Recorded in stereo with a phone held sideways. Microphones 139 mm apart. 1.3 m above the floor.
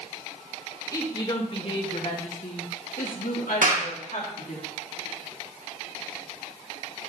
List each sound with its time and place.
0.9 s a woman speaking: 25° left (ahead or behind), 2.5 m; by 4.6 s 75° left (ahead or behind), 3 m
3.6 s a clap: 70° right (ahead or behind), 1.9 m